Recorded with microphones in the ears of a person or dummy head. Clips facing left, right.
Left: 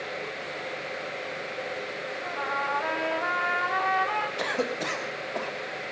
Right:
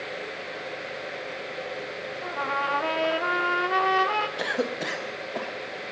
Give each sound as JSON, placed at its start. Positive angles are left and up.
{"t": 2.2, "sound": "a trumpet", "side_deg": -50, "distance_m": 0.9}
{"t": 4.4, "sound": "a cough", "side_deg": -5, "distance_m": 1.1}